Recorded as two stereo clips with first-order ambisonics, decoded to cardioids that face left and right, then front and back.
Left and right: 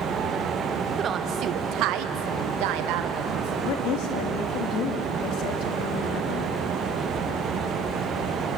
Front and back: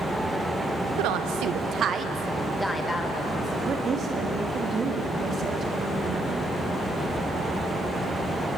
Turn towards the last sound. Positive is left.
turn(degrees=115)